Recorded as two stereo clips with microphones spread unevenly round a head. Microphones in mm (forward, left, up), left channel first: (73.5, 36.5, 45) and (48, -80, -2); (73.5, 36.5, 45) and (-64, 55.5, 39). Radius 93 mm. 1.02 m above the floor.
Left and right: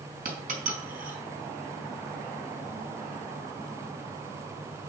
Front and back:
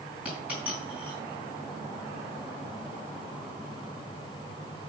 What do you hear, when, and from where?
0.2 s a dropped coin: 105° right, 4 m